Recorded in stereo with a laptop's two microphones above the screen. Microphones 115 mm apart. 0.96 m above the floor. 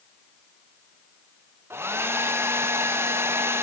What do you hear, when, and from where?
1.7 s a hair dryer: 20° right (ahead or behind), 0.5 m